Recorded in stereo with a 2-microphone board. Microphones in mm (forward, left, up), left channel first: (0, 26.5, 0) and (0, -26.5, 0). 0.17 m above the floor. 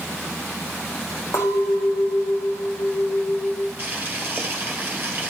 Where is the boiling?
30° right (ahead or behind), 3.5 m.